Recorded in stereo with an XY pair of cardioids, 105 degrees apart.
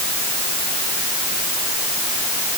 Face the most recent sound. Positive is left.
No sound to turn to.